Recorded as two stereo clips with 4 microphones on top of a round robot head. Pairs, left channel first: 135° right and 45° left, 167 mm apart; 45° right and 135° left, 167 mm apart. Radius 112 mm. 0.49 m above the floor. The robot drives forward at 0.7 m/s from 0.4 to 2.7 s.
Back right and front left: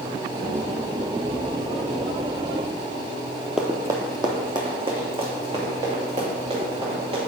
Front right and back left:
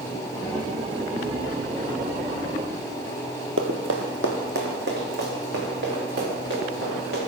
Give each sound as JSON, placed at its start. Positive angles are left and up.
{"t": 3.6, "sound": "running footsteps", "azimuth_deg": 130, "distance_m": 0.6}